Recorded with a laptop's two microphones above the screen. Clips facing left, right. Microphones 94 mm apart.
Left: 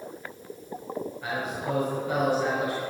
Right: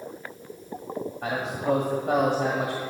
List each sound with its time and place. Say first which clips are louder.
1.2 s a man speaking: right 5 dB; 75° right (ahead or behind), 1.5 m